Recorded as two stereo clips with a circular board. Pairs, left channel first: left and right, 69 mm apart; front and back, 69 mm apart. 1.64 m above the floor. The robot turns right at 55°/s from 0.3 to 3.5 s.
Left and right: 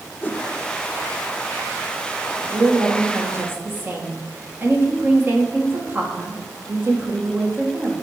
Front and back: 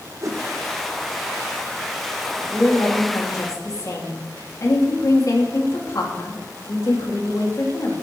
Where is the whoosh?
150° left, 0.7 m; by 0.4 s 155° left, 0.7 m.